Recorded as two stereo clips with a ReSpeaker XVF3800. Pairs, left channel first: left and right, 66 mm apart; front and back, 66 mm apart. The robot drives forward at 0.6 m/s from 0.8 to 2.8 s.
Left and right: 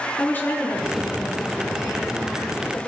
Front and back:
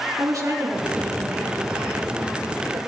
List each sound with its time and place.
0.2 s a woman speaking: 150° left, 3 m; by 2.8 s 160° left, 4 m